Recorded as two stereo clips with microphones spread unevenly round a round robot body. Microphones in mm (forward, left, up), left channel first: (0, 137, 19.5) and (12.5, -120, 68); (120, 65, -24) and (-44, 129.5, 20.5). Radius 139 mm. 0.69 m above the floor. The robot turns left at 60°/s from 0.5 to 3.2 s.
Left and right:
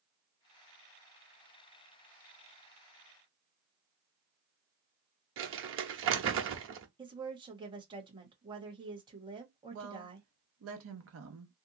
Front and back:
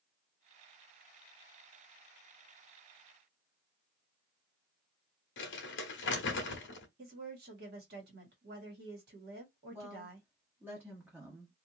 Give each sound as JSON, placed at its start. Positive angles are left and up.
{"t": 5.4, "sound": "crumpling", "azimuth_deg": -45, "distance_m": 0.9}
{"t": 7.0, "sound": "a woman speaking", "azimuth_deg": -165, "distance_m": 1.4}
{"t": 9.7, "sound": "a woman speaking", "azimuth_deg": -110, "distance_m": 1.1}